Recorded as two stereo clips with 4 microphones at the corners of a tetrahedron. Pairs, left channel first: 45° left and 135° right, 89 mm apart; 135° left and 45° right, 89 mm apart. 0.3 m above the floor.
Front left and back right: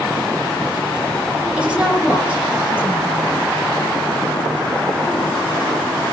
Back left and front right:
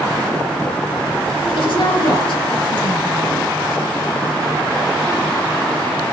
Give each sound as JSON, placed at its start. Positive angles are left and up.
{"t": 1.6, "sound": "a woman speaking", "azimuth_deg": 150, "distance_m": 4.0}